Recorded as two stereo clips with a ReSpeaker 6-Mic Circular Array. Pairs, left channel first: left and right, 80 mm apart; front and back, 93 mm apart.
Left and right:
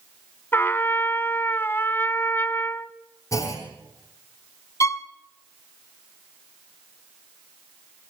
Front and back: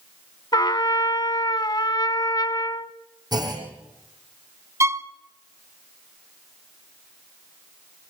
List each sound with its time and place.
0.5 s a trumpet: 30° left, 1.0 m
3.3 s a clunk: 140° left, 5 m
4.8 s a violin: 130° left, 1.2 m